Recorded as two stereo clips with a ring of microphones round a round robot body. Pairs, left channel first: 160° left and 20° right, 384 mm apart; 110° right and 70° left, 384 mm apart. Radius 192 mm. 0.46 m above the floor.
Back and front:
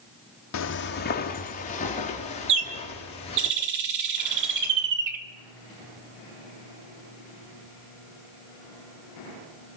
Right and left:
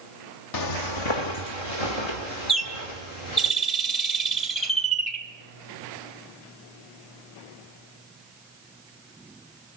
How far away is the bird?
About 1.4 m.